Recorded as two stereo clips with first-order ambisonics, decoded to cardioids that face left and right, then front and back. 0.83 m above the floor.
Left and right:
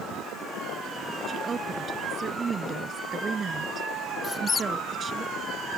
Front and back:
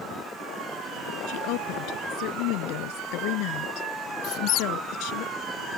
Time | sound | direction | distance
1.3 | a woman speaking | 25° right | ?
4.2 | a squeak | 20° left | ?